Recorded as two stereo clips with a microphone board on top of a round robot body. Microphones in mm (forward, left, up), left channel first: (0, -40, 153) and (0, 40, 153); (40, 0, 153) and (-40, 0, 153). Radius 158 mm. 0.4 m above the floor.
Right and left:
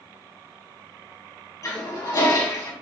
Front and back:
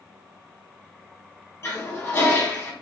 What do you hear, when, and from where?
1.6 s a toilet flushing: 55° right, 1.5 m